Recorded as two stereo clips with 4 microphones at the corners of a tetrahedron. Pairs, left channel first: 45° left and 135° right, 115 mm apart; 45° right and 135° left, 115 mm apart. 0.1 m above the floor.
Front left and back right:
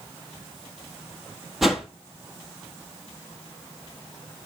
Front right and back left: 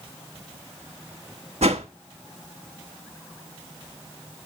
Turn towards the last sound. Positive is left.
turn(degrees=135)